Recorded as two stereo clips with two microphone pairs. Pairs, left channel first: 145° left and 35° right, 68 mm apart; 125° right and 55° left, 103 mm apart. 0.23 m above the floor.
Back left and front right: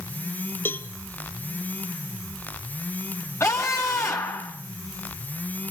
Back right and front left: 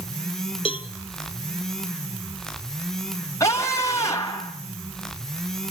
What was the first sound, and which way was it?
A cowbell, 155° right.